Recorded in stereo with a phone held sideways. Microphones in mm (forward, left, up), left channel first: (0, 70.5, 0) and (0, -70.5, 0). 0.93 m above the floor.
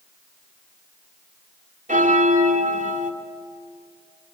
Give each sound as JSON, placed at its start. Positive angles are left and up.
{"t": 1.9, "sound": "a bell", "side_deg": -65, "distance_m": 1.7}